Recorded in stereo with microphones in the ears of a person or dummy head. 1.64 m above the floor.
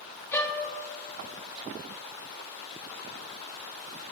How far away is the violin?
About 0.7 m.